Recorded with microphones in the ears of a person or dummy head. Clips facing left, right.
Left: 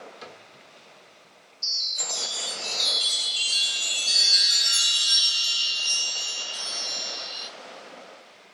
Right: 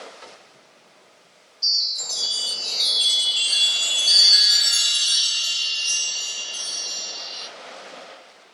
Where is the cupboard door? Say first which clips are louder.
Left 1 dB; 75° left (ahead or behind), 2 m.